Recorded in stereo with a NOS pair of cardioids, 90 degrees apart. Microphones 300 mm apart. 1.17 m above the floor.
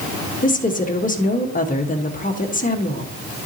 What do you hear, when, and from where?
0.4 s a woman speaking: 25° left, 1.2 m